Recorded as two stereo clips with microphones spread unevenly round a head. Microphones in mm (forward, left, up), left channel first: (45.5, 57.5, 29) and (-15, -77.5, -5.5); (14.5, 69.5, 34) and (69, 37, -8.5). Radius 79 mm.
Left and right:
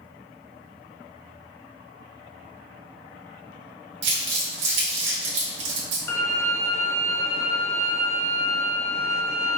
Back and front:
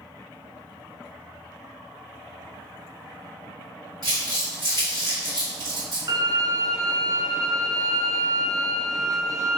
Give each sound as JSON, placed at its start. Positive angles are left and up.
{"t": 4.0, "sound": "crumpling", "azimuth_deg": -140, "distance_m": 1.3}
{"t": 6.1, "sound": "a violin", "azimuth_deg": 15, "distance_m": 0.6}